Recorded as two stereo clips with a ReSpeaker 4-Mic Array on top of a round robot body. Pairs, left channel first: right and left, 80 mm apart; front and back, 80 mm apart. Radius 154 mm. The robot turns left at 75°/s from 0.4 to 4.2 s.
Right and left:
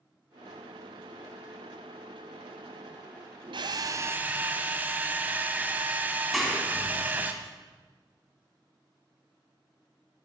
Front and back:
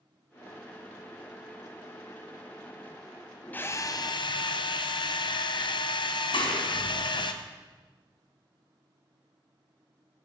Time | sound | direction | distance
3.5 | a drill | 70° left | 1.3 m
6.3 | a clap | straight ahead | 4 m